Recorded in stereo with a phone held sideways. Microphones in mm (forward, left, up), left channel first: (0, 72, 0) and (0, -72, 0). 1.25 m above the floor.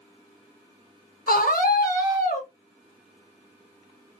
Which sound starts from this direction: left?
A scream, at 1.3 s.